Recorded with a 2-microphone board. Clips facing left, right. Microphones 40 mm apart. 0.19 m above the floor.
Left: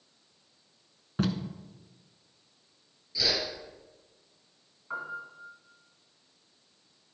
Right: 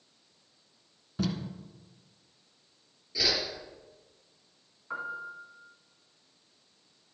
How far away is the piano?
About 1.9 m.